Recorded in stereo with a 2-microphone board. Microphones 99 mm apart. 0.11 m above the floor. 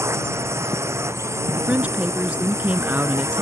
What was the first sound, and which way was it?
A drone, 25° right (ahead or behind).